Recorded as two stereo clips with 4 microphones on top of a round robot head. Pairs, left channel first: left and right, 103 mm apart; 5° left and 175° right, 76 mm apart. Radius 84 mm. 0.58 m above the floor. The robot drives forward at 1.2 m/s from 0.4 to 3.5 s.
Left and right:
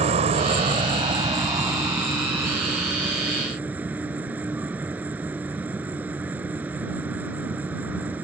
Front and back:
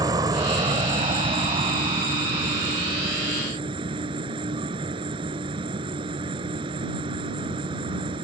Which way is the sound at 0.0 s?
125° right.